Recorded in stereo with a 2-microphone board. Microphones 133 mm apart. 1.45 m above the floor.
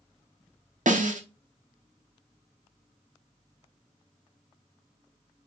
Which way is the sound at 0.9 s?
80° right.